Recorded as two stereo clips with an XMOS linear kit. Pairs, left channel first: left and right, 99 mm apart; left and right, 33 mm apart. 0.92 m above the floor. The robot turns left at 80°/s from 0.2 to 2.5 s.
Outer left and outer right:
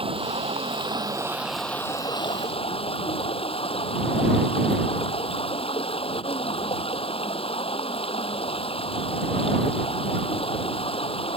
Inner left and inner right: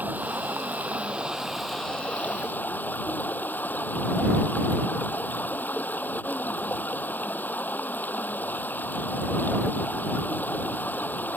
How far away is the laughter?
No laughter in this recording.